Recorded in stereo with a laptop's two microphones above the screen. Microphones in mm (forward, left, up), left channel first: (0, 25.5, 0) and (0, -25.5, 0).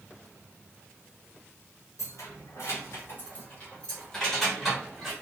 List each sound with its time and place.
2.0 s keys jangling: 80° left, 0.9 m; by 5.1 s 10° right (ahead or behind), 1.3 m